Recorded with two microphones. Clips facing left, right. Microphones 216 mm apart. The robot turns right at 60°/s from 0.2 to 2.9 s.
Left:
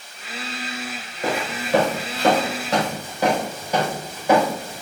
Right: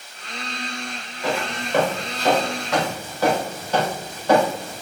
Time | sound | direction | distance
1.2 | footsteps | 45° left (ahead or behind) | 4 m